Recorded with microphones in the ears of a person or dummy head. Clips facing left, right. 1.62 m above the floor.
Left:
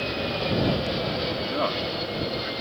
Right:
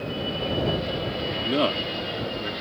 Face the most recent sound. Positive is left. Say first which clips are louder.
# right 3 dB
turn(degrees=-45)  # may be behind; listen again after turning